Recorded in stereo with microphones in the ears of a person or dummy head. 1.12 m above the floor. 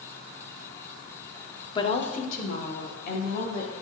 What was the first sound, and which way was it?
A woman speaking, 35° left (ahead or behind).